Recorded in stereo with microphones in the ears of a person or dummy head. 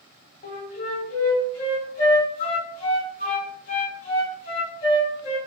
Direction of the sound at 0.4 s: 40° left (ahead or behind).